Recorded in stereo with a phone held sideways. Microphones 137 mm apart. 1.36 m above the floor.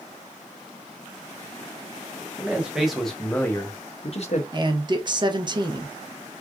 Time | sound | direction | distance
2.4 | a man speaking | 10° right (ahead or behind) | 1.2 m
4.5 | a man speaking | 35° right (ahead or behind) | 0.6 m